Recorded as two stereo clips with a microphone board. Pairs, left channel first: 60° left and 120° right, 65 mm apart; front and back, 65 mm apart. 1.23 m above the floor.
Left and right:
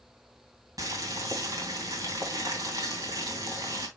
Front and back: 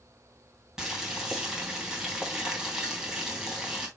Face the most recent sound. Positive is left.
turn(degrees=-100)